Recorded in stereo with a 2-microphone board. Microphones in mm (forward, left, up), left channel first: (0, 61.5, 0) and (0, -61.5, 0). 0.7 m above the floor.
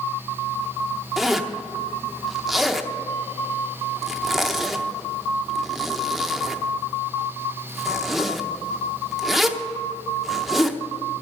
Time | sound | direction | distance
1.2 | a zipper | centre (ahead or behind) | 0.7 m